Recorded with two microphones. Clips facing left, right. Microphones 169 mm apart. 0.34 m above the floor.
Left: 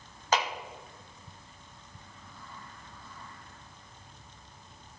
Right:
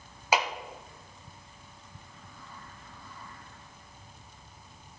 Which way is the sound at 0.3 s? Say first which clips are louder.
Right 1 dB; 10° right (ahead or behind).